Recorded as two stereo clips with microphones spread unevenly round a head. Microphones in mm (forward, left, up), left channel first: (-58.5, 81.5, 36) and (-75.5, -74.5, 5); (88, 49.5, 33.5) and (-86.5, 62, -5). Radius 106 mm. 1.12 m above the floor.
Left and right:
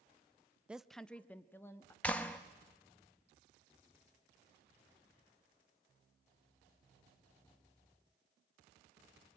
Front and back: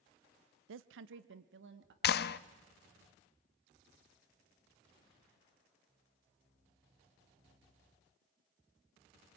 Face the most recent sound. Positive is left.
turn(degrees=5)